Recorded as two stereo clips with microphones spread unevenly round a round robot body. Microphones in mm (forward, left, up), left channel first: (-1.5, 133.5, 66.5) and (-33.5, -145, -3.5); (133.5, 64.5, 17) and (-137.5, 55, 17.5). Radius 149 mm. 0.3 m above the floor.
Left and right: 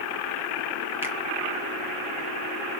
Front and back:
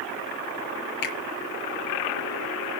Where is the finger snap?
15° right, 5.5 m.